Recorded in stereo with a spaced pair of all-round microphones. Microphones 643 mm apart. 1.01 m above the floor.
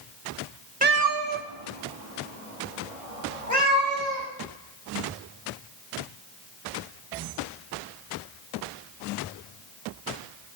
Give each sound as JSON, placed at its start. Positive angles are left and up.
{"t": 0.8, "sound": "a cat meowing", "side_deg": -15, "distance_m": 0.8}